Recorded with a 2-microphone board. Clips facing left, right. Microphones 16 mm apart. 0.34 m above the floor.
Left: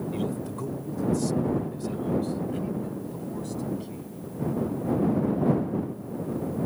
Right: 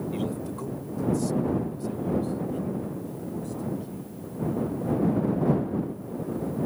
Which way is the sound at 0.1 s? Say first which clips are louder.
Even; 5° right (ahead or behind).